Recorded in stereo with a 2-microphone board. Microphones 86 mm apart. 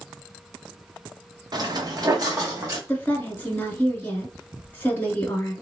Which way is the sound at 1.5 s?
50° right (ahead or behind).